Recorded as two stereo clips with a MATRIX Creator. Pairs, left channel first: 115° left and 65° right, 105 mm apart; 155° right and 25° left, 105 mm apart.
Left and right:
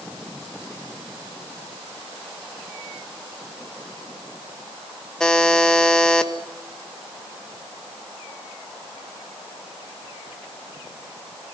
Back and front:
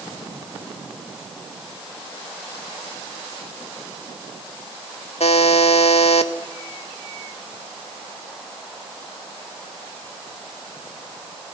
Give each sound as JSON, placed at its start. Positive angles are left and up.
{"t": 5.2, "sound": "a buzzer", "azimuth_deg": -165, "distance_m": 1.6}